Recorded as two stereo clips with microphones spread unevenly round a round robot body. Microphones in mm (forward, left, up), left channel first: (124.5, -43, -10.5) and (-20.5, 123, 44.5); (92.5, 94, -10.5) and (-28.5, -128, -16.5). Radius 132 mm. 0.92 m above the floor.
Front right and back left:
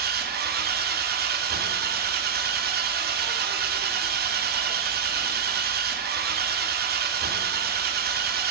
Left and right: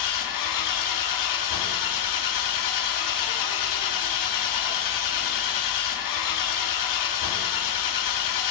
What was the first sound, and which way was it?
An engine running, 80° left.